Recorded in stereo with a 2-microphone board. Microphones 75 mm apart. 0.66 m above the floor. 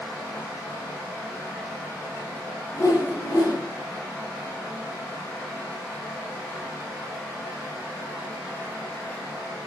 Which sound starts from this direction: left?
A whoosh, at 2.7 s.